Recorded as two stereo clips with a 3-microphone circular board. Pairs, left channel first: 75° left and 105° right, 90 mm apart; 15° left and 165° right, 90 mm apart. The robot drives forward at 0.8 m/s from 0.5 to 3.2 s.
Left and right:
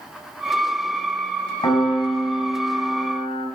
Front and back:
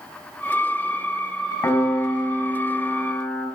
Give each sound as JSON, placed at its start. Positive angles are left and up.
{"t": 1.6, "sound": "a piano", "azimuth_deg": 60, "distance_m": 4.0}